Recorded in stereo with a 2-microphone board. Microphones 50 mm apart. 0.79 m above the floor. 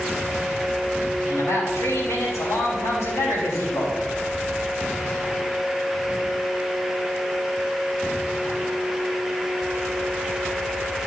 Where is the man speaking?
75° left (ahead or behind), 4 m.